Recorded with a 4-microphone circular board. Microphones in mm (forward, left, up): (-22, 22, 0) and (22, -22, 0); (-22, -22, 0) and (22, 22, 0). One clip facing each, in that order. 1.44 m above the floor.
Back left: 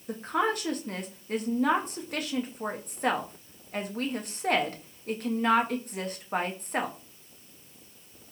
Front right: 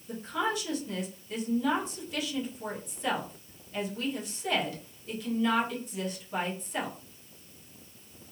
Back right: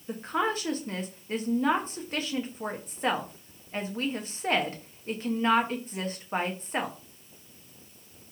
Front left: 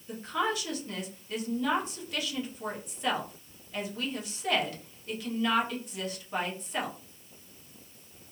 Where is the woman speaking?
170° left, 0.6 m.